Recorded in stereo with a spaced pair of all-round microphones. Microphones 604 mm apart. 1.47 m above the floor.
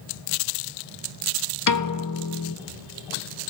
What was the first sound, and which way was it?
A piano, 35° left (ahead or behind).